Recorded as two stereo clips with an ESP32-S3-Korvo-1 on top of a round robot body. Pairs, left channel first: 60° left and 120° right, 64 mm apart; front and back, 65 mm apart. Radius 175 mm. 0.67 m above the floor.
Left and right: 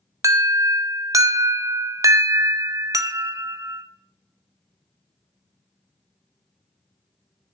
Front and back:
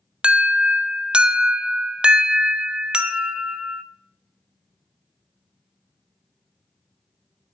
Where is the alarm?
105° right, 1.2 m.